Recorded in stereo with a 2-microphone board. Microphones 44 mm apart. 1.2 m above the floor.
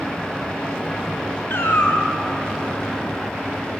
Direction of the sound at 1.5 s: 55° left (ahead or behind).